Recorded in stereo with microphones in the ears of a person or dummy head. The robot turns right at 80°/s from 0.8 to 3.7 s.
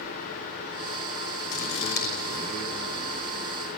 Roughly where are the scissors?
Left.